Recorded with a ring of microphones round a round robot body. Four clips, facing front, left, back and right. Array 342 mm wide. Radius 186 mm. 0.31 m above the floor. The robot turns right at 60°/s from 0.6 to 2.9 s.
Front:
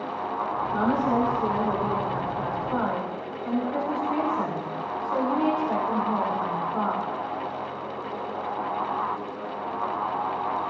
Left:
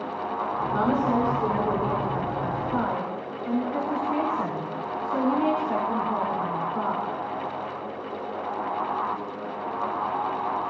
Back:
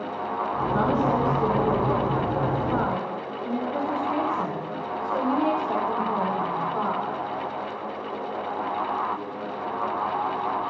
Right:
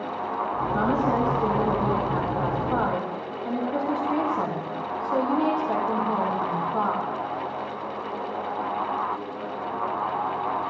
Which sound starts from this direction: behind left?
A woman speaking, at 0.7 s.